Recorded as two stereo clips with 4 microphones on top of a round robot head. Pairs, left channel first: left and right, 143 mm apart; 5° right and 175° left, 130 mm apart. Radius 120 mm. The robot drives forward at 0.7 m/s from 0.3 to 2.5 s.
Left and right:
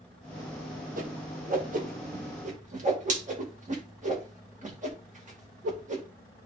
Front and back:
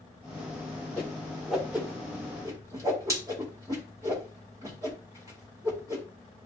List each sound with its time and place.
1.0 s a whoosh: 85° right, 1.9 m; by 6.0 s 120° right, 2 m